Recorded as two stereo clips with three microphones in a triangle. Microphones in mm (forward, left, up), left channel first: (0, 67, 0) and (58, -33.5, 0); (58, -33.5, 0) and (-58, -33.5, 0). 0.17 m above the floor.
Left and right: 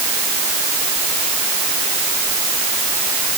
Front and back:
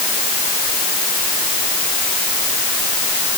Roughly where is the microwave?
I don't hear a microwave.